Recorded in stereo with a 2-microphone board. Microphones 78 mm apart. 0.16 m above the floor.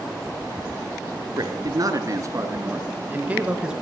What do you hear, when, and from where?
1.4 s a man speaking: 55° right (ahead or behind), 2.5 m; by 3.8 s 10° right (ahead or behind), 2.5 m